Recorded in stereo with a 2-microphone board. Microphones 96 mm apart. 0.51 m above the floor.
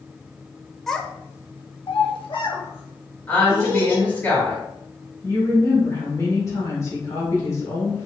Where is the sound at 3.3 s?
20° left (ahead or behind), 2 m.